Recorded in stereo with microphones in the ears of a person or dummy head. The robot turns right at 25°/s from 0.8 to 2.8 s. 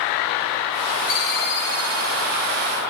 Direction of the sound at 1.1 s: 50° left.